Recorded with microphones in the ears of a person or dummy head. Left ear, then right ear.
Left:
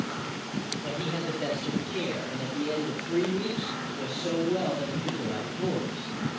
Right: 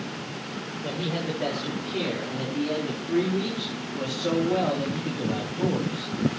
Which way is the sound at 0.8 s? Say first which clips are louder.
Right 4 dB; 20° right (ahead or behind).